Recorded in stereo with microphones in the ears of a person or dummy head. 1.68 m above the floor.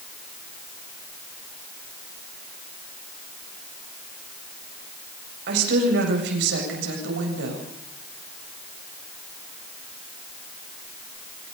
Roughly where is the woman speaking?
Right.